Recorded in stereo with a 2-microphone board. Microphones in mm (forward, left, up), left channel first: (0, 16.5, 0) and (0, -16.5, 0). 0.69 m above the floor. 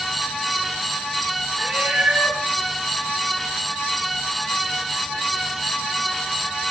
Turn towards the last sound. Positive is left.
turn(degrees=-40)  # may be behind; listen again after turning